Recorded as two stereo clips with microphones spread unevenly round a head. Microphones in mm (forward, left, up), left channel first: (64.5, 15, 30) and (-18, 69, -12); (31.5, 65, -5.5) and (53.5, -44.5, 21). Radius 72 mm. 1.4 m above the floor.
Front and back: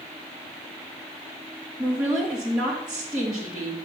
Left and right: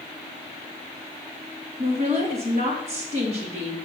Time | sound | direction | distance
1.8 | a woman speaking | 125° right | 1.9 m